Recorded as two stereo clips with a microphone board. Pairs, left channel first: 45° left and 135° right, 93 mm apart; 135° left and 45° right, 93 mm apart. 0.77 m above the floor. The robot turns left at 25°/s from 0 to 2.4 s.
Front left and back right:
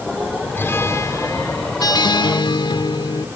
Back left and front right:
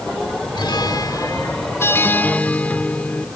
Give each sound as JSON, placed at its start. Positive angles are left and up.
{"t": 0.6, "sound": "a guitar", "azimuth_deg": 110}